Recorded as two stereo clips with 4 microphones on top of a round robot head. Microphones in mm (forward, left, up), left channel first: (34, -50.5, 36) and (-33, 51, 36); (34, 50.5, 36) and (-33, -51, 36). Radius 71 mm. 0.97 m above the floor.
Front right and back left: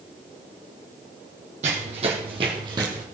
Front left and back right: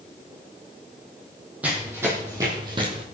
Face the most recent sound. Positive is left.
turn(degrees=-170)